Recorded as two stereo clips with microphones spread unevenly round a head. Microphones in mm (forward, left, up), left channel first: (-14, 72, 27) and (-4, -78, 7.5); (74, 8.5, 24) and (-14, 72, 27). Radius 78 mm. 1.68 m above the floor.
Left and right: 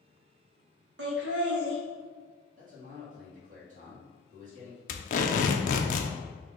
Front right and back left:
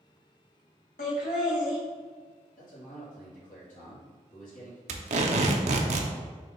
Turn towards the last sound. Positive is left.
turn(degrees=130)